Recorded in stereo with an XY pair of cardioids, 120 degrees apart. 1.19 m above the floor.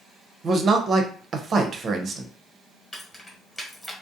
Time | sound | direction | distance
0.4 | a man speaking | 40° right | 0.6 m
2.9 | keys jangling | 15° left | 1.1 m